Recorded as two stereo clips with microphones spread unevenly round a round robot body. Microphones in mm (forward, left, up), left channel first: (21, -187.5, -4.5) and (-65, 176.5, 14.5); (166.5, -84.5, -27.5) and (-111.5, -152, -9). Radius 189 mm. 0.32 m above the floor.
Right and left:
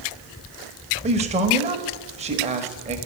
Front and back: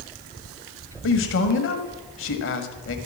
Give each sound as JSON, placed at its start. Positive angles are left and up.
{"t": 1.0, "sound": "a man speaking", "azimuth_deg": 30, "distance_m": 1.1}